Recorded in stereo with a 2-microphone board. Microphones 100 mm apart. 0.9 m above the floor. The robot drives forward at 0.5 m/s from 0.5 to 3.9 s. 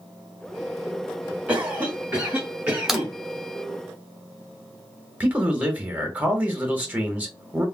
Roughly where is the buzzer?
I don't hear a buzzer.